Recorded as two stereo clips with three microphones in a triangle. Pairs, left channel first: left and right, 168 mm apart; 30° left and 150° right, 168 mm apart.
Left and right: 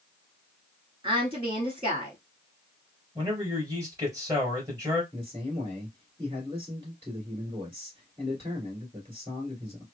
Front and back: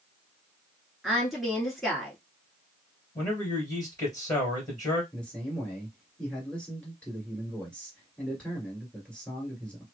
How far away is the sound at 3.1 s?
About 1.9 m.